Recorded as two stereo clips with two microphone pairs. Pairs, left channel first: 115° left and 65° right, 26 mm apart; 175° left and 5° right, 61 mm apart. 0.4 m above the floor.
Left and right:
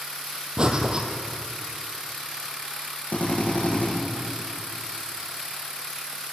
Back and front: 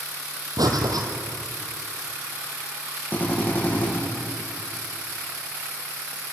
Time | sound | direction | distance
0.6 | breathing | 5° right | 2.5 m
3.1 | a drill | 110° left | 8 m